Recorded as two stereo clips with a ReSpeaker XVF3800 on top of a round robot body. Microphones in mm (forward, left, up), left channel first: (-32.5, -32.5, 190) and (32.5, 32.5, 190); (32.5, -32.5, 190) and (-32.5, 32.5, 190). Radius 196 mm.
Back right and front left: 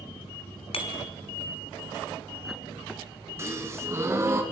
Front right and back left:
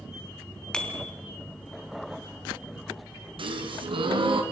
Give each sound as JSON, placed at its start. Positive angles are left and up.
{"t": 0.7, "sound": "a bicycle bell", "azimuth_deg": -125, "distance_m": 3.0}
{"t": 3.4, "sound": "a gasp", "azimuth_deg": 105, "distance_m": 2.5}